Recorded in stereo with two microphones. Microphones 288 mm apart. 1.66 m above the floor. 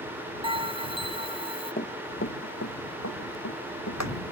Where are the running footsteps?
35° left (ahead or behind); by 4.1 s 65° left (ahead or behind).